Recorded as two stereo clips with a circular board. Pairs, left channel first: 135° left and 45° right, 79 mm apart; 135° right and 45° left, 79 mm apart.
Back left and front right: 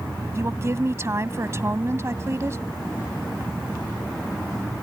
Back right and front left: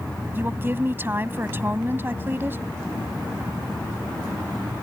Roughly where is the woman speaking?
Ahead.